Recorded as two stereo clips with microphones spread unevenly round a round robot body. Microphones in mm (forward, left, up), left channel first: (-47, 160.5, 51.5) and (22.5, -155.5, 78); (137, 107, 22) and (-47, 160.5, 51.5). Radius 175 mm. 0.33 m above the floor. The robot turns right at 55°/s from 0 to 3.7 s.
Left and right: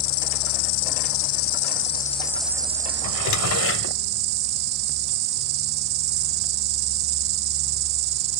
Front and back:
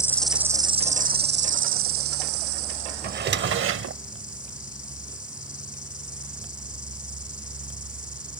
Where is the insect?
60° left; by 8.4 s 95° right.